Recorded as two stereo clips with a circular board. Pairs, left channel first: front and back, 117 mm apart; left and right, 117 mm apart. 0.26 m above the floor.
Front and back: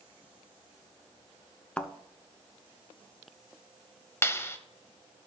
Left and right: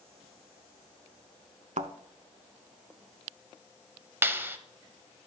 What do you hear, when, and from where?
1.8 s a thud: 80° right, 0.6 m
4.2 s a clap: 40° right, 0.8 m